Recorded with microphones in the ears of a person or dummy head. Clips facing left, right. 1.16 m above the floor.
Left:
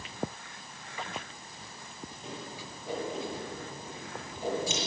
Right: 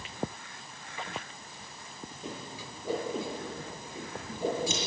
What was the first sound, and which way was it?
A whoosh, 80° right.